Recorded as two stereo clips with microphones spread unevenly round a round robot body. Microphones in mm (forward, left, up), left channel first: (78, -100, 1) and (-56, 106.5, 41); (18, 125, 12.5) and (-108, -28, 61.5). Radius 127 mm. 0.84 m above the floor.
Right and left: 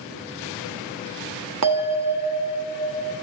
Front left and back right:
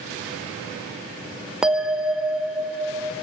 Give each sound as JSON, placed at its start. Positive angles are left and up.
{"t": 1.6, "sound": "a bell", "azimuth_deg": 135, "distance_m": 1.0}